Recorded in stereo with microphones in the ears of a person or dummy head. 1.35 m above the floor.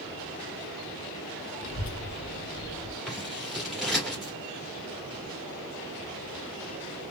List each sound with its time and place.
1.6 s a child speaking: 55° left (ahead or behind), 1.2 m; by 3.0 s 5° right (ahead or behind), 0.8 m
3.1 s scissors: 5° right (ahead or behind), 1.9 m